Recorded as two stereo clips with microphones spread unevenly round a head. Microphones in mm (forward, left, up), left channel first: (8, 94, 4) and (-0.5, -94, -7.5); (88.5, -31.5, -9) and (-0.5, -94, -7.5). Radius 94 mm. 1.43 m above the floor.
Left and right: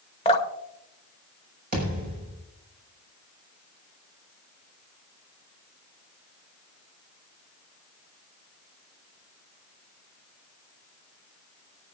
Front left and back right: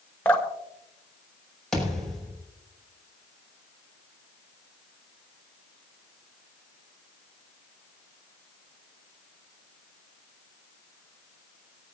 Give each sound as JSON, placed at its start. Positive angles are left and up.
{"t": 0.2, "sound": "dripping", "azimuth_deg": 105, "distance_m": 1.3}
{"t": 1.7, "sound": "a thud", "azimuth_deg": -50, "distance_m": 6.5}